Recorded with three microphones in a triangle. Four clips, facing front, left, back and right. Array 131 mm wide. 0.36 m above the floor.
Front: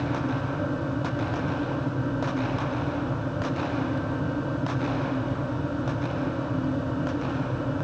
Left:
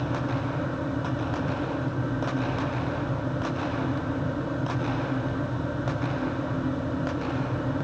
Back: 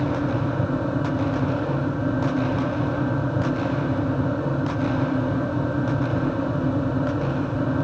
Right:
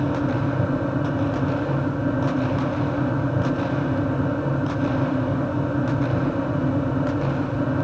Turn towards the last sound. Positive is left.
No sound to turn to.